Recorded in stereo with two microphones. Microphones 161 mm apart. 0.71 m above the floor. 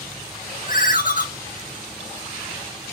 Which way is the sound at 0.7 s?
55° left (ahead or behind).